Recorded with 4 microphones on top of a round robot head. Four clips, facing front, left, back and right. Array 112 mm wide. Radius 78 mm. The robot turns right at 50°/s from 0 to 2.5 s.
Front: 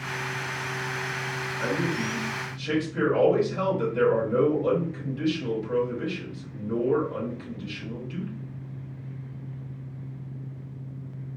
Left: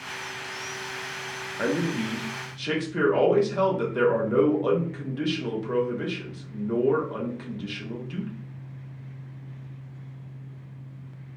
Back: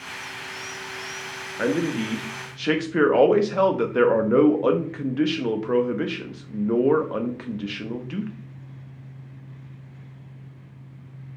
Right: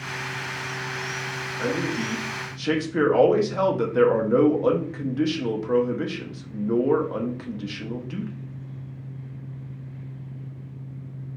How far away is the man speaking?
About 0.6 m.